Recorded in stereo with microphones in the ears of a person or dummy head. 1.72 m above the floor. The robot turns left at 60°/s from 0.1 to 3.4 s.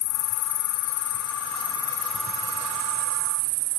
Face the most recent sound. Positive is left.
turn(degrees=-75)